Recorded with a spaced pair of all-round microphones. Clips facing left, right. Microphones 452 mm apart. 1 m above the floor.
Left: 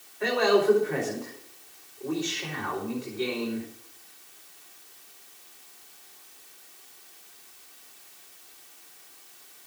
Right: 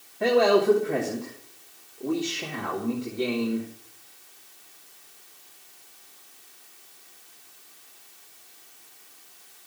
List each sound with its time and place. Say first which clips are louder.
0.2 s a man speaking: right 3 dB; 55° right (ahead or behind), 2.5 m